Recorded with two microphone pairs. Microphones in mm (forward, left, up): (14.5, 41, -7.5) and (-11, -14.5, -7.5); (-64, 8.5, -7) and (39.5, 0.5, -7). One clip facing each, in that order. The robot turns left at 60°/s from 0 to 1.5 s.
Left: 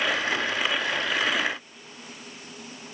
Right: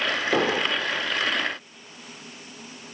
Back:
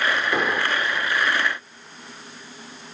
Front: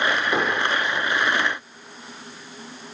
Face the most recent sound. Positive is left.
turn(degrees=-160)